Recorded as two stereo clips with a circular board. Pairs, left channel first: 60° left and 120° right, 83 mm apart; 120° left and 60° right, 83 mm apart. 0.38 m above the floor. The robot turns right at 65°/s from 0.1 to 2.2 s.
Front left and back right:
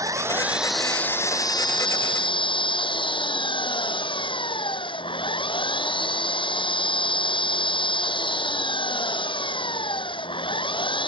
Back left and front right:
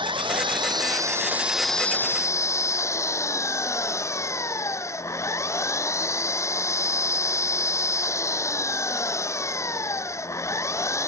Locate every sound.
0.0 s an engine running: 70° right; by 11.1 s 65° left